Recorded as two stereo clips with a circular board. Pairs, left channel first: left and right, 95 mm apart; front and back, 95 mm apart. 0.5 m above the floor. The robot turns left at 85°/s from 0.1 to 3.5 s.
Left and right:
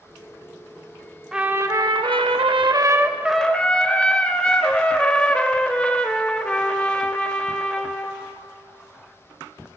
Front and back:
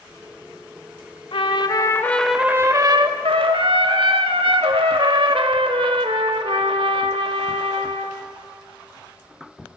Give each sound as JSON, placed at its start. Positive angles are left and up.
{"t": 1.3, "sound": "a trumpet", "azimuth_deg": -5, "distance_m": 0.6}